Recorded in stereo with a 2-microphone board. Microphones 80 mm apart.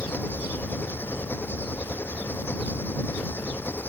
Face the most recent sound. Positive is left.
turn(degrees=25)  # may be behind; listen again after turning